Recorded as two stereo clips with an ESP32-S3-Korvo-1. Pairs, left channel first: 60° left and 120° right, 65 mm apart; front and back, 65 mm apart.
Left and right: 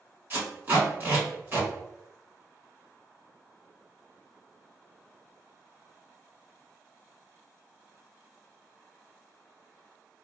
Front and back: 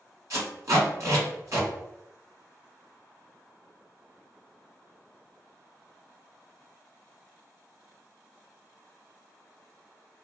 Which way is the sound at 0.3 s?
165° right.